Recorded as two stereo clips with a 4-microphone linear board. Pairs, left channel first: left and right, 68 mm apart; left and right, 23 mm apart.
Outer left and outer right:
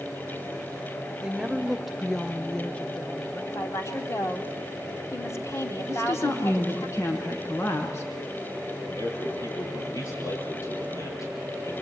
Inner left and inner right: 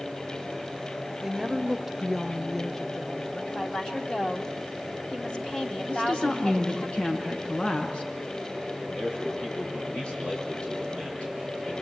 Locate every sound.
1.2 s a woman speaking: 15° right (ahead or behind), 1.4 m; by 3.5 s 35° left (ahead or behind), 1.3 m
3.5 s a woman speaking: 45° left (ahead or behind), 2.5 m
5.9 s a woman speaking: 45° left (ahead or behind), 4.5 m
8.8 s a man speaking: 55° left (ahead or behind), 8.5 m